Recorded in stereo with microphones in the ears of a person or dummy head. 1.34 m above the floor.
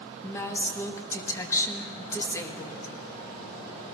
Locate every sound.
0.2 s a woman speaking: 15° left (ahead or behind), 1.3 m